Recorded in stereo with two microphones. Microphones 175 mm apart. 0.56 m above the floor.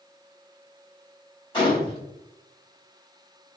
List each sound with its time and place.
1.5 s a gunshot: 30° left (ahead or behind), 1.7 m